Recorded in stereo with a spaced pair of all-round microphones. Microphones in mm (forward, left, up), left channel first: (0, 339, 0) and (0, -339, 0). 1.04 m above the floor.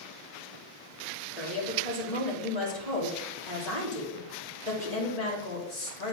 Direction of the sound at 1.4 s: 65° left (ahead or behind).